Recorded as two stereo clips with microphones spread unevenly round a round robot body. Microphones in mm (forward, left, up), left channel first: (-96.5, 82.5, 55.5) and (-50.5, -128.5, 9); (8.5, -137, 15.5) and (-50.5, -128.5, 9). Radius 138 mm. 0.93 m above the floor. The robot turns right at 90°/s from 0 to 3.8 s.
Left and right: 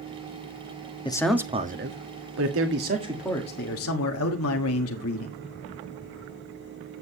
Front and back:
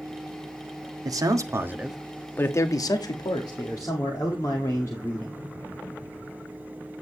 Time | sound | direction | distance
1.1 | a man speaking | 175° left | 1.6 m